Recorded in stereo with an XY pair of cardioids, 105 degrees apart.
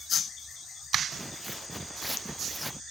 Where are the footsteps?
5° right; by 2.8 s straight ahead.